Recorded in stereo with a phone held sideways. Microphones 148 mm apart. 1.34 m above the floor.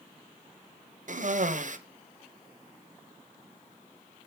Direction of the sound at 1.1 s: 60° right (ahead or behind).